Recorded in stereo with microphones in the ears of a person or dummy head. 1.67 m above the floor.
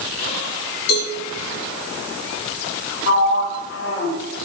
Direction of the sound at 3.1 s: 75° left (ahead or behind).